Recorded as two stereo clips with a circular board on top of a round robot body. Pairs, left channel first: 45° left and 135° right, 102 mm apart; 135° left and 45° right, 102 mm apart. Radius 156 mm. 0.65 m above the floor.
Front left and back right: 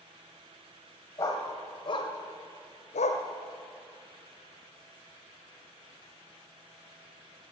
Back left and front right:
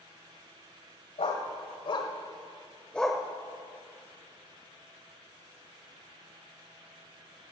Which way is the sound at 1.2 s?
110° left.